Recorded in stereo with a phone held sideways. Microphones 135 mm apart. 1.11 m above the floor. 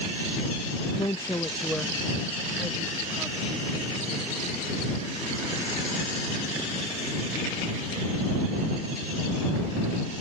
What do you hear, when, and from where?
1.0 s a woman speaking: 40° left (ahead or behind); by 4.0 s 20° right (ahead or behind)